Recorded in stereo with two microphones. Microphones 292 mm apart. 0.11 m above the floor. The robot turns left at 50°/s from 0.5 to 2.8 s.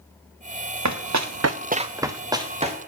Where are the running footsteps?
70° right (ahead or behind), 1.1 m; by 2.8 s 25° right (ahead or behind), 1.7 m.